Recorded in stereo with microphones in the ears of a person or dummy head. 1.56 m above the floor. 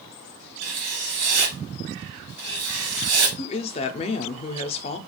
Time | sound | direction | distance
0.6 | writing | 85° right | 1.2 m
3.4 | a woman speaking | 30° left (ahead or behind) | 0.5 m